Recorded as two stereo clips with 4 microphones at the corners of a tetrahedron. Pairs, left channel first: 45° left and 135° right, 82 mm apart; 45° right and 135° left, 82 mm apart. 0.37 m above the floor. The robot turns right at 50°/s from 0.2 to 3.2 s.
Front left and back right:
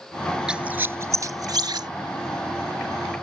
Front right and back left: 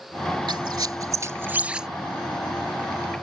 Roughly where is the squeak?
Behind left.